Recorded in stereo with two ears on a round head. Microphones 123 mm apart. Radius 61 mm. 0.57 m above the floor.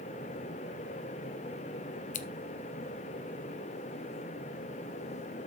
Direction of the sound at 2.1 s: 60° left (ahead or behind).